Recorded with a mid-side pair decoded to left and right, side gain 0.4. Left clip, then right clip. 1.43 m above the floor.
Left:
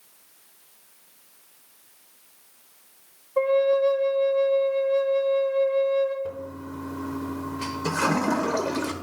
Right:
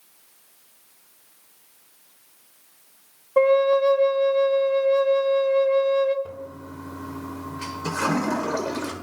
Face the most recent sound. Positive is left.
turn(degrees=5)